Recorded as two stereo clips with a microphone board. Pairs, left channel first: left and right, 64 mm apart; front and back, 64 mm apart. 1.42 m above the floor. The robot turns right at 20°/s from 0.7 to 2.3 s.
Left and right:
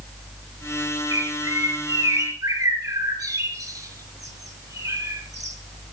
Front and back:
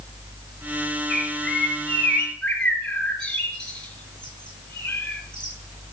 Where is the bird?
100° right, 4.5 m; by 5.5 s 75° right, 4.5 m.